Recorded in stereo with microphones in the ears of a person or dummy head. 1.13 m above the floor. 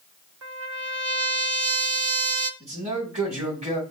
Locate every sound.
0.4 s a trumpet: 70° right (ahead or behind), 0.9 m
2.6 s a man speaking: 25° right (ahead or behind), 2.5 m